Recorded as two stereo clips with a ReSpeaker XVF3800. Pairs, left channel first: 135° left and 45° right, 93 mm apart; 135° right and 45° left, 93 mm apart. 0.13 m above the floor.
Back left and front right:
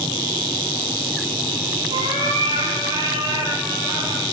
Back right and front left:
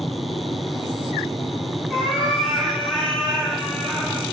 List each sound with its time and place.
1.9 s a cat meowing: 35° right, 7 m; by 4.3 s 55° right, 6.5 m